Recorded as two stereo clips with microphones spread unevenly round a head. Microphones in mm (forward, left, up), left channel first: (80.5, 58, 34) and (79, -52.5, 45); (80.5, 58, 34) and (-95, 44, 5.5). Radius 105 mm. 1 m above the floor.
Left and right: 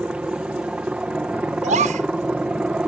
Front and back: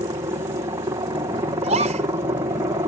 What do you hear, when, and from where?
0.0 s a helicopter: 165° right
1.6 s a gasp: 115° right